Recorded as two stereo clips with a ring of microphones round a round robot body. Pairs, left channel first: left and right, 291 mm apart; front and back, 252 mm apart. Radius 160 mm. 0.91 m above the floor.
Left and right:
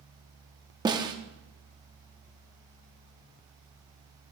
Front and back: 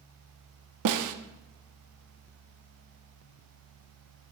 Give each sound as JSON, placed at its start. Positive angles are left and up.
{"t": 0.8, "sound": "a snare drum", "azimuth_deg": -165, "distance_m": 0.8}